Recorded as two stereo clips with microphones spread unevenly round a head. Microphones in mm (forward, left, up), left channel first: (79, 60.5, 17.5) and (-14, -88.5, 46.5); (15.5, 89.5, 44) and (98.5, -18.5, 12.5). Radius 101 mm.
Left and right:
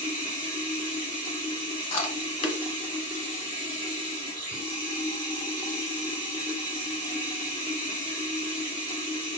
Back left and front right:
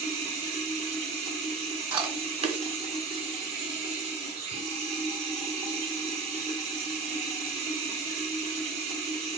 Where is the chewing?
Straight ahead, 0.9 m.